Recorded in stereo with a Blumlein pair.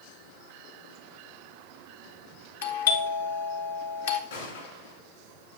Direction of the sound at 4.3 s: 70° left.